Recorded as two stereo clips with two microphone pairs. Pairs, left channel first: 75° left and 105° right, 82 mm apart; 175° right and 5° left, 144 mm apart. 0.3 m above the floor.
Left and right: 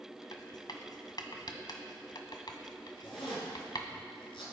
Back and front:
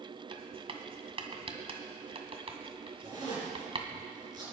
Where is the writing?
50° left, 1.6 m.